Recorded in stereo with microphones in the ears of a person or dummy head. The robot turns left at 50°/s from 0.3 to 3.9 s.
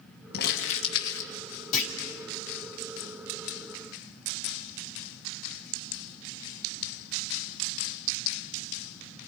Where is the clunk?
45° left (ahead or behind), 3 m; by 1.9 s 35° left (ahead or behind), 3 m.